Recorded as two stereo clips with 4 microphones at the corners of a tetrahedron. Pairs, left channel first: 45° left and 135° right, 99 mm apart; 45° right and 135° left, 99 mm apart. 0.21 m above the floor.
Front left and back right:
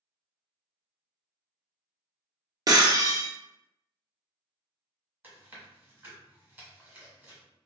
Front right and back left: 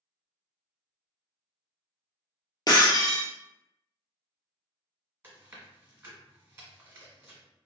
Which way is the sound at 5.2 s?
175° left.